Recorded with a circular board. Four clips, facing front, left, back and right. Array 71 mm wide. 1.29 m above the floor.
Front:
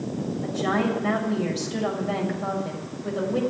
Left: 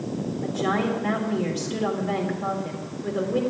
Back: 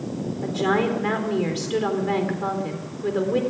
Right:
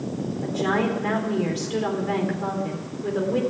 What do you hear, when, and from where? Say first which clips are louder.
0.4 s a woman speaking: right 2 dB, back 3 dB; 170° right, 3.5 m